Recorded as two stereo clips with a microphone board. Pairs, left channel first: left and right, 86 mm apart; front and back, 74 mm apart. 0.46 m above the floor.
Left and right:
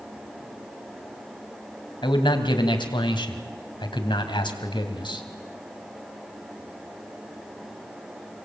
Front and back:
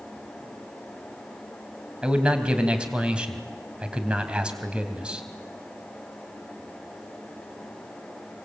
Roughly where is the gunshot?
No gunshot in this recording.